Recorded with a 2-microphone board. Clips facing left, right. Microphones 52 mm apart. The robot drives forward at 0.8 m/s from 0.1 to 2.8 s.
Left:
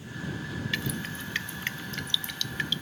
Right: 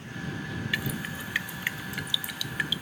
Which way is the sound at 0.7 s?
15° right (ahead or behind).